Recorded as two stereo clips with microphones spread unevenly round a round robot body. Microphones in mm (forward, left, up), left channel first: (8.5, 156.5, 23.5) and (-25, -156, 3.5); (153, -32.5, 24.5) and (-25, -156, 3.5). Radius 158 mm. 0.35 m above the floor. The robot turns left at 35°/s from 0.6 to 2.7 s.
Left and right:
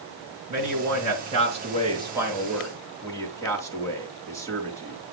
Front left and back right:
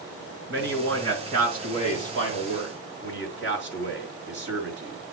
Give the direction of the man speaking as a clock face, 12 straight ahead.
4 o'clock.